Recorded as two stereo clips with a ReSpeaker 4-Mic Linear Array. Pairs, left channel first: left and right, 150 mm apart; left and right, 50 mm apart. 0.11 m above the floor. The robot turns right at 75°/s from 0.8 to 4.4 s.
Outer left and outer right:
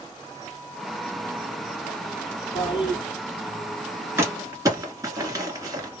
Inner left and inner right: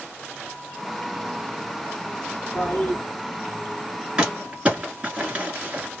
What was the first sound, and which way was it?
A toilet flushing, 75° left.